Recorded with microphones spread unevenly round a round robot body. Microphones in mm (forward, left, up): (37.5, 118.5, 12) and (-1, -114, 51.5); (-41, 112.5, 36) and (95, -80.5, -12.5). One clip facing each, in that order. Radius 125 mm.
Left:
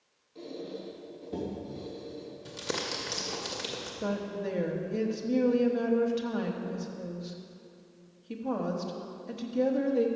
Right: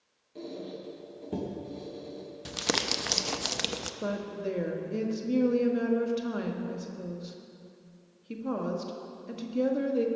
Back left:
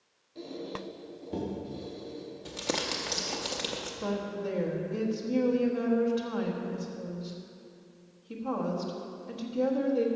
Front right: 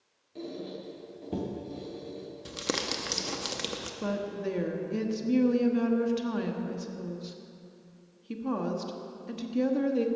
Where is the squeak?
80° right, 3.5 m.